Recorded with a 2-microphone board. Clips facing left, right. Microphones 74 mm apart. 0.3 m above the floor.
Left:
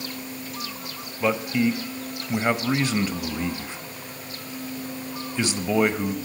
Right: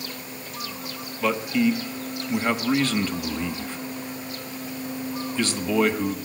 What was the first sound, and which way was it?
A man speaking, 15° left (ahead or behind).